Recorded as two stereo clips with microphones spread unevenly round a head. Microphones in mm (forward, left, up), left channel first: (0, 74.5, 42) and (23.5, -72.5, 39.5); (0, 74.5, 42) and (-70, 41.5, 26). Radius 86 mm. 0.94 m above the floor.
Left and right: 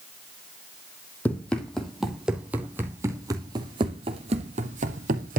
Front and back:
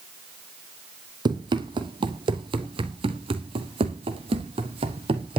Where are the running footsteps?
Straight behind, 2 m; by 5.4 s 120° right, 2 m.